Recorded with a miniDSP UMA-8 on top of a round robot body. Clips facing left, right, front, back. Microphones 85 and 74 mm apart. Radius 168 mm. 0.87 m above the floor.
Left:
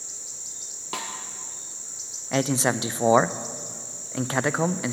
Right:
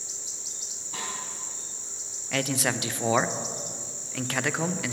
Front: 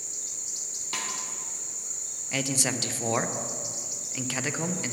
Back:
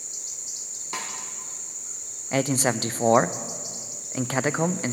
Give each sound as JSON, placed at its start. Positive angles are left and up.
{"t": 0.9, "sound": "a snare drum", "azimuth_deg": 105, "distance_m": 1.1}
{"t": 2.3, "sound": "a man speaking", "azimuth_deg": 145, "distance_m": 0.5}